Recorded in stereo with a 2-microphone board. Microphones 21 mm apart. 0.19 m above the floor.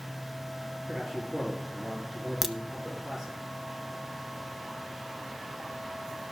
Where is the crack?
15° right (ahead or behind), 0.5 m.